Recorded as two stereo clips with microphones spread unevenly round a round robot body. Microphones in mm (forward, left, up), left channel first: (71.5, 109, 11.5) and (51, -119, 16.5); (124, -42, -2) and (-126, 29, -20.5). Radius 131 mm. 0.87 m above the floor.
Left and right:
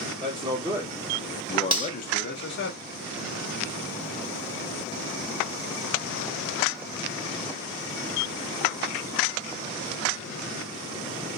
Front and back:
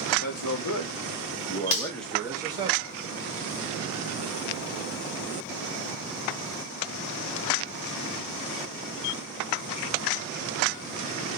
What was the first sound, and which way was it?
A man speaking, 35° right.